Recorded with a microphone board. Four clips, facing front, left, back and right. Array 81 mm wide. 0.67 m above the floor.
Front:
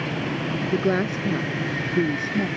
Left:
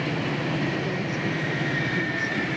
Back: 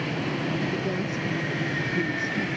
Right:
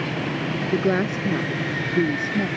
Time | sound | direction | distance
0.7 | a woman speaking | 50° right | ?